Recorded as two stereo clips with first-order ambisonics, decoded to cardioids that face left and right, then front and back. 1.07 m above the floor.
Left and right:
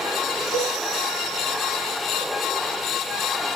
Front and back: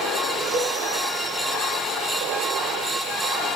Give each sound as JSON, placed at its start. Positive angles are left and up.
{"t": 0.5, "sound": "a cowbell", "azimuth_deg": 50, "distance_m": 4.0}